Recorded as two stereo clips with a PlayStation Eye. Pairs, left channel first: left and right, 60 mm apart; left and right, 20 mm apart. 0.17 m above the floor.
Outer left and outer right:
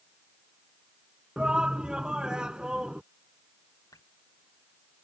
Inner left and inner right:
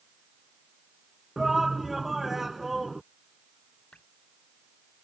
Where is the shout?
15° right (ahead or behind).